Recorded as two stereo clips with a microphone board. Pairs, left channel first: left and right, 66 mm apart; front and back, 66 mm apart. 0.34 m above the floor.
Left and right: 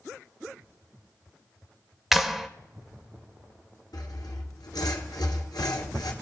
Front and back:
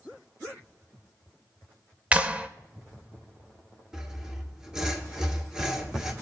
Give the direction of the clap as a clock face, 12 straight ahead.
6 o'clock.